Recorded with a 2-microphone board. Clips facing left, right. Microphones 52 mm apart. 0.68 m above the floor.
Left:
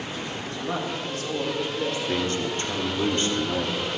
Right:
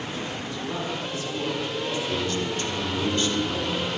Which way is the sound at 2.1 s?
35° left (ahead or behind).